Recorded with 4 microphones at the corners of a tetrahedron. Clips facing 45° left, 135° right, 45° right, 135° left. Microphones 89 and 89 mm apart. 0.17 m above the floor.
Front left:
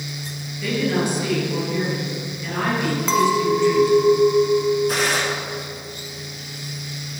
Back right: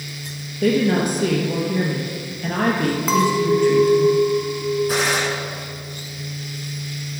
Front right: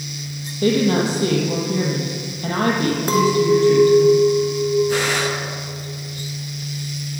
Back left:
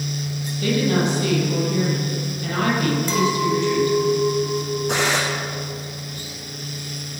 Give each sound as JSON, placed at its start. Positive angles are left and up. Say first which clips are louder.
{"t": 0.6, "sound": "a woman speaking", "louder": "back right 4 dB, front right 3 dB", "azimuth_deg": -100, "distance_m": 3.0}
{"t": 3.1, "sound": "a clink", "louder": "even, front right 8 dB", "azimuth_deg": -50, "distance_m": 1.5}
{"t": 4.9, "sound": "a gunshot", "louder": "back right 1 dB, front right 1 dB", "azimuth_deg": 140, "distance_m": 3.5}